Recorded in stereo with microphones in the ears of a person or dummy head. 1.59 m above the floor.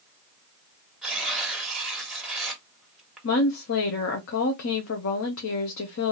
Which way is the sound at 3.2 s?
65° left (ahead or behind).